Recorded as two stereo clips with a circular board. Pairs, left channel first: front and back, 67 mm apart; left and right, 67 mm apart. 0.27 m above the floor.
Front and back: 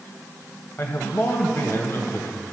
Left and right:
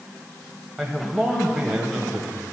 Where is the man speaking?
5° right, 1.1 m.